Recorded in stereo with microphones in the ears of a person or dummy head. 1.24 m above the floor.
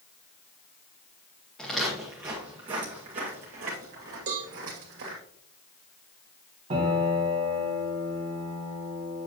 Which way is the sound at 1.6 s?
5° left (ahead or behind).